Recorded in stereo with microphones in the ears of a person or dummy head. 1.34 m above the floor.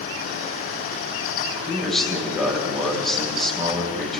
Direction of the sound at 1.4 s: Centre (ahead or behind).